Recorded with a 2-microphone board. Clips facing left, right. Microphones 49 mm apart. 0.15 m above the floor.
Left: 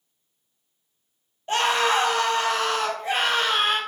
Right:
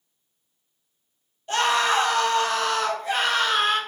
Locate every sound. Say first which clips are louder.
1.5 s a scream: even; 25° left (ahead or behind), 3 m